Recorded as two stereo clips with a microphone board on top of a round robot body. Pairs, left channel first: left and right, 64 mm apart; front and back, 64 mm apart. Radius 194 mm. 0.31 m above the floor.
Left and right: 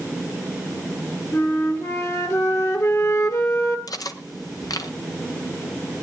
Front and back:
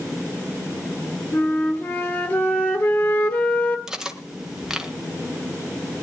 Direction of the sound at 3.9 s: 100° left.